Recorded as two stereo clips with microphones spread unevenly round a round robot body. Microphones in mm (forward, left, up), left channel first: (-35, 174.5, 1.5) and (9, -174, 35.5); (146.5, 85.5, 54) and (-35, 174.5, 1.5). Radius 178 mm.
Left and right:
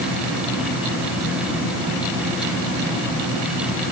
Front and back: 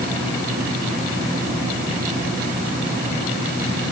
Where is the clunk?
I don't hear a clunk.